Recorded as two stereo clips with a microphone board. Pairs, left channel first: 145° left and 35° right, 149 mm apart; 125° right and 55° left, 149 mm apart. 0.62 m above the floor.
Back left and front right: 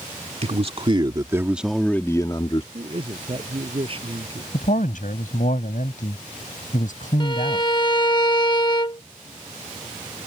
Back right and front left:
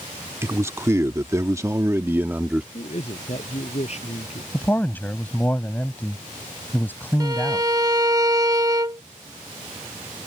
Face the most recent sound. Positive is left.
turn(degrees=105)